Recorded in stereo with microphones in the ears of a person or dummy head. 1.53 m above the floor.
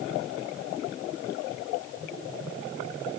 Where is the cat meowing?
No cat meowing in this recording.